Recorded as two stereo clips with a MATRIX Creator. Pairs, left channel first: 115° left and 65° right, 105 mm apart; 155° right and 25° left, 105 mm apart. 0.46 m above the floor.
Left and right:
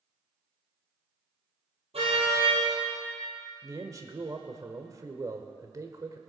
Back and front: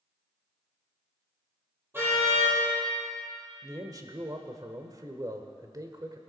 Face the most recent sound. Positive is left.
turn(degrees=-20)